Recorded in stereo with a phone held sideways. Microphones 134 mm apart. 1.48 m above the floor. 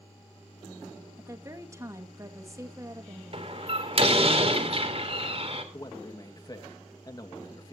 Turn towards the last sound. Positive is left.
turn(degrees=30)  # may be behind; listen again after turning